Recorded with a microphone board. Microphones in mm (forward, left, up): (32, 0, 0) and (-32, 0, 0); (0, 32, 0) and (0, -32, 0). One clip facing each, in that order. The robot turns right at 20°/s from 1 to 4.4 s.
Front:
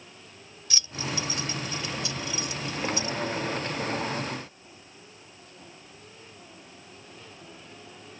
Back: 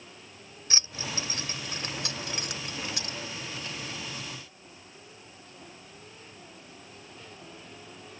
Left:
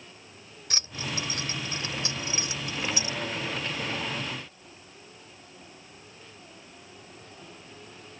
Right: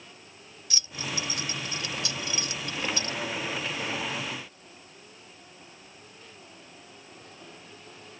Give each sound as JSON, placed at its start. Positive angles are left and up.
{"t": 0.7, "sound": "keys jangling", "azimuth_deg": 125}